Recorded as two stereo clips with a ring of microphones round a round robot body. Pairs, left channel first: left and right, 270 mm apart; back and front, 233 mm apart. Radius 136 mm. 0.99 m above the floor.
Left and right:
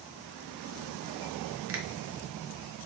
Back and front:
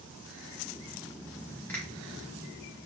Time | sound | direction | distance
1.7 | a finger snap | 100° right | 0.5 m